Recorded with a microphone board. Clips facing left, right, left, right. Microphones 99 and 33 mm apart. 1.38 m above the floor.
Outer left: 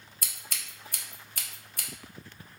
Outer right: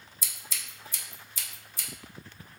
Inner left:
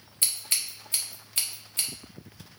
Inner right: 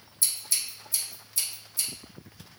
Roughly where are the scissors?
Left.